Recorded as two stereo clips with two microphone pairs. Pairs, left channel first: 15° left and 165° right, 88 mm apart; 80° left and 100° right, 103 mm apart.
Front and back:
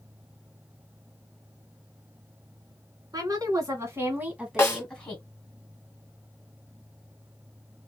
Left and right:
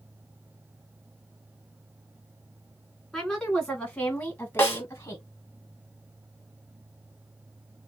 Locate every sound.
3.1 s a woman speaking: 170° left, 2.5 m; by 5.2 s 55° left, 1.5 m
4.6 s a snare drum: 40° left, 1.7 m